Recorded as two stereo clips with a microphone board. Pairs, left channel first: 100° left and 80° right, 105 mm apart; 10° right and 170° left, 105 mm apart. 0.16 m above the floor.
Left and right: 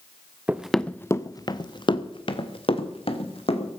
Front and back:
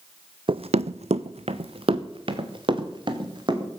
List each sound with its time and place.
0.5 s running footsteps: 150° right, 0.6 m; by 3.7 s 125° left, 3 m